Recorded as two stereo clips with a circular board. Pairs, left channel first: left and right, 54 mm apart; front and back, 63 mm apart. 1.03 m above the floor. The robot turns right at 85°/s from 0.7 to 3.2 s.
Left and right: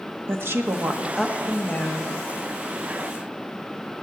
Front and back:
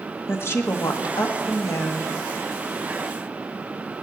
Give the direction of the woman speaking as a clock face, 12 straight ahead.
2 o'clock.